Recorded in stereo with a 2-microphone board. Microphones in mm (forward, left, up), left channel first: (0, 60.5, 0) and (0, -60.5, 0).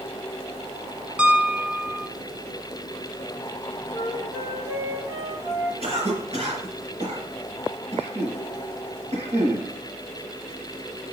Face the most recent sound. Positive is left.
turn(degrees=-60)  # may be behind; listen again after turning